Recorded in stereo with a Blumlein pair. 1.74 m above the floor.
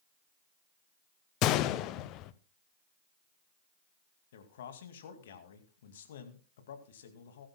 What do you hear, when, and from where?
1.4 s a gunshot: 35° left, 0.8 m
4.3 s a man speaking: 60° left, 2 m